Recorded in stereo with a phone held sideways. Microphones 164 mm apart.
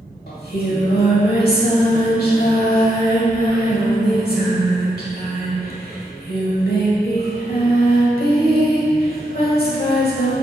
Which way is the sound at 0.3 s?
70° left (ahead or behind).